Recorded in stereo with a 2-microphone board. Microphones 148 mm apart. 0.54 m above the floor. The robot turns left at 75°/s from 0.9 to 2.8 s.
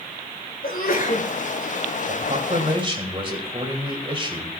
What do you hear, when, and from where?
0.6 s a sneeze: 70° left (ahead or behind), 5 m; by 1.3 s 45° left (ahead or behind), 5 m
2.1 s a man speaking: 85° right, 2.5 m; by 4.5 s 140° right, 2.5 m